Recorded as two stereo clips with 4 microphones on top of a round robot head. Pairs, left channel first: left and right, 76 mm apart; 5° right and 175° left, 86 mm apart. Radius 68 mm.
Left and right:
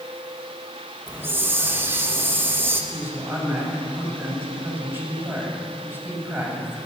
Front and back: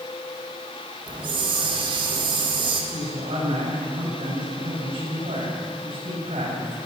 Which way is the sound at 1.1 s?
150° right.